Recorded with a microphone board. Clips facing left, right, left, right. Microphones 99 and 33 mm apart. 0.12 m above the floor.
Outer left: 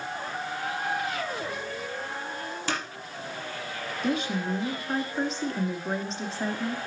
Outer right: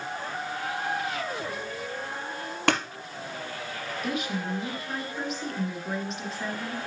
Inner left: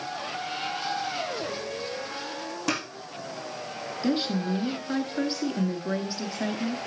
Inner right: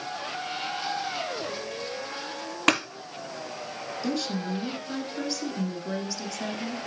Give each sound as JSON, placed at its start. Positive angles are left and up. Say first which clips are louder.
{"t": 2.7, "sound": "scissors", "louder": "outer right 7 dB, inner right 6 dB", "side_deg": -70, "distance_m": 1.0}
{"t": 4.0, "sound": "a woman speaking", "louder": "outer left 3 dB, inner left 4 dB", "side_deg": 30, "distance_m": 1.3}